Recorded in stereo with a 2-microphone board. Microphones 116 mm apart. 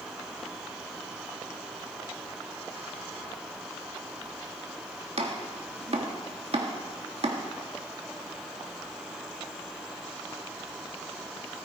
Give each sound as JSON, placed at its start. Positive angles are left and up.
{"t": 5.2, "sound": "chopping", "side_deg": -60, "distance_m": 1.9}